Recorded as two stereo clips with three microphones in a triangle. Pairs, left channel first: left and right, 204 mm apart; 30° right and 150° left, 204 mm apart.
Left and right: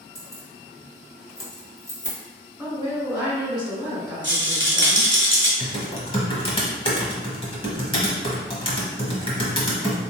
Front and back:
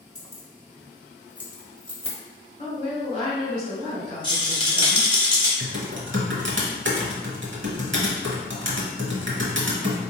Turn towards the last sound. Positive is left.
turn(degrees=150)